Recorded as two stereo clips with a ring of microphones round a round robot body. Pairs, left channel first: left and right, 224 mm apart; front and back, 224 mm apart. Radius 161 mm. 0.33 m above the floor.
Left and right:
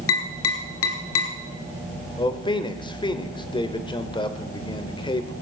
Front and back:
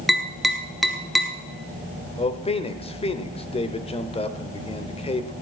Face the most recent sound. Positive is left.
turn(degrees=40)